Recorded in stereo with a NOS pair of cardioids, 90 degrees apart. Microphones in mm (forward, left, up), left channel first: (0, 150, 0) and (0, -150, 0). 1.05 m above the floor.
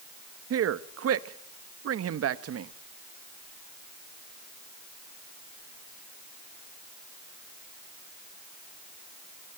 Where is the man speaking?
55° right, 1.3 m.